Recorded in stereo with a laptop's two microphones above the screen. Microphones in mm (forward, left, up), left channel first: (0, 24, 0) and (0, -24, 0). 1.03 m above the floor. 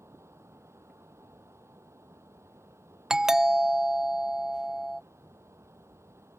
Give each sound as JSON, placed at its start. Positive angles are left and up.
{"t": 0.0, "sound": "a fan", "side_deg": -80}
{"t": 3.1, "sound": "a doorbell", "side_deg": -10}